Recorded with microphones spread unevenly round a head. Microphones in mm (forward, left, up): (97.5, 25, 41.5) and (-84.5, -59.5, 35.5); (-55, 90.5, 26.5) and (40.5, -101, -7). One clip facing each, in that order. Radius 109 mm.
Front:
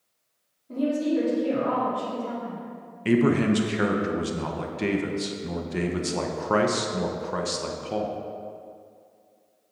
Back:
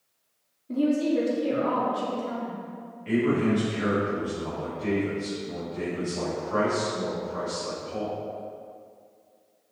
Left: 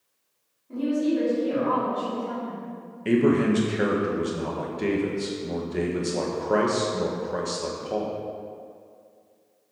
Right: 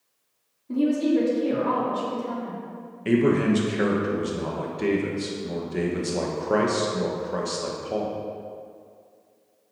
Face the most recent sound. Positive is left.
turn(degrees=25)